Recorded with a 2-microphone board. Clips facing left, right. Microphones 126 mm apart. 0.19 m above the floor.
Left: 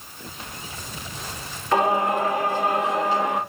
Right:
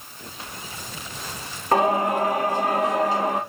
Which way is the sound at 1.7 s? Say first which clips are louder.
Right 1 dB; 40° right (ahead or behind).